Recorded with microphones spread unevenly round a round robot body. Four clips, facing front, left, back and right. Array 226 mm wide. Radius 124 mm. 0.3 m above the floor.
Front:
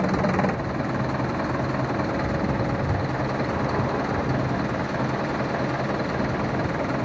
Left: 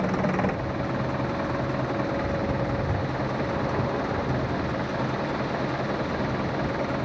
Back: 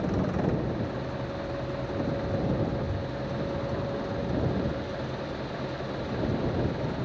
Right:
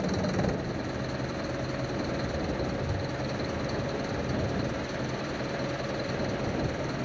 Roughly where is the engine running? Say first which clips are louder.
Left 4 dB, front 6 dB; ahead.